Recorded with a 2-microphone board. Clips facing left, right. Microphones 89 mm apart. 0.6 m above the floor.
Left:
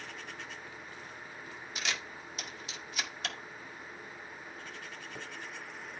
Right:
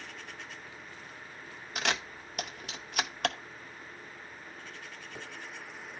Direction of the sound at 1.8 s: 55° right (ahead or behind).